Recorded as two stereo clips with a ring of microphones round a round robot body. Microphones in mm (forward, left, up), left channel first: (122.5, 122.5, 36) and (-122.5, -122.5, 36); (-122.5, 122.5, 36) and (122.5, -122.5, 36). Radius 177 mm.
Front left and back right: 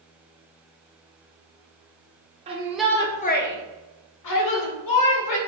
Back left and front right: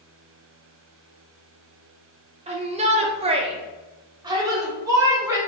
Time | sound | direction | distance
2.5 | a shout | 90° right | 0.6 m